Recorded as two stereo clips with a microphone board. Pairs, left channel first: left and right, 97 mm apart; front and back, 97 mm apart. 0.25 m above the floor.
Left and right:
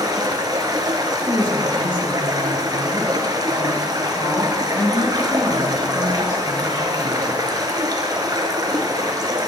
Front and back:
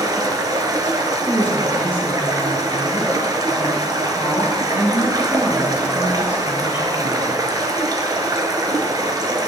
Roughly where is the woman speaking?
Left.